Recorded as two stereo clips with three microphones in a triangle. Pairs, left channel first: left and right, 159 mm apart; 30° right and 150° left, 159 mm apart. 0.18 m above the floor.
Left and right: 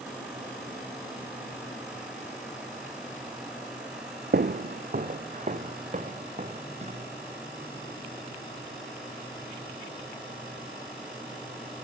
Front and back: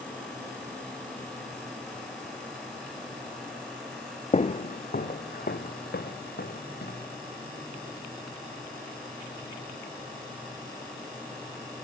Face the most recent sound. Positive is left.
turn(degrees=-40)